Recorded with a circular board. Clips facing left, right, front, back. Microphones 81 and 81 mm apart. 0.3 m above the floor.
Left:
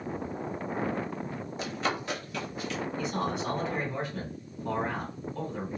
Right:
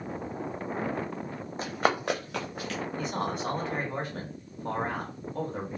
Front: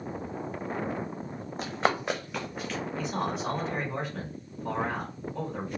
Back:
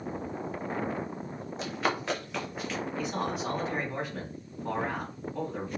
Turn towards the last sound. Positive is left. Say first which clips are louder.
# even, front 1 dB
turn(degrees=-95)